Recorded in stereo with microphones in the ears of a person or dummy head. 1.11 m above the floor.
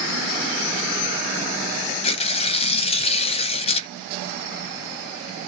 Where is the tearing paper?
30° left (ahead or behind), 0.6 m.